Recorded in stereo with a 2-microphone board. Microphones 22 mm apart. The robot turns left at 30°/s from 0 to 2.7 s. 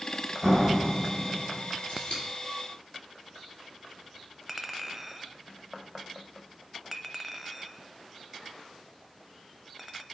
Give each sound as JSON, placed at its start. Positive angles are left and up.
{"t": 0.4, "sound": "a door slam", "azimuth_deg": -155, "distance_m": 3.5}
{"t": 1.9, "sound": "scissors", "side_deg": 60, "distance_m": 3.5}
{"t": 4.5, "sound": "a clink", "side_deg": -10, "distance_m": 0.5}